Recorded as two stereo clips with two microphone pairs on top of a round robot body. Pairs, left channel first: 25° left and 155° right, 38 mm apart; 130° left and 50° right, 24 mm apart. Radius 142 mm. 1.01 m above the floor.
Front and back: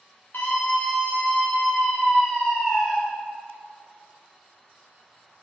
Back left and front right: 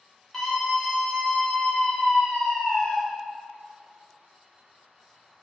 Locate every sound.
0.3 s a scream: 55° left, 3.5 m; by 3.0 s 100° left, 3 m